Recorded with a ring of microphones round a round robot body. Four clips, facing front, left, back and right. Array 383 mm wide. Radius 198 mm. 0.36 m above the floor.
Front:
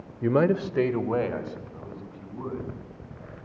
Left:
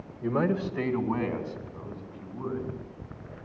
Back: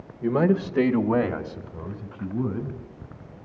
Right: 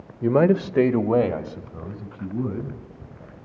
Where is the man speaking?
65° right, 1.3 m; by 2.8 s 130° right, 3.5 m.